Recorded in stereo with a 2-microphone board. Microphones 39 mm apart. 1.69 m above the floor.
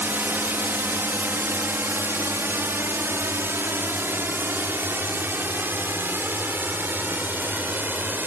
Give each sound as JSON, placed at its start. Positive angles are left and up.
{"t": 0.0, "sound": "a drone", "side_deg": -60}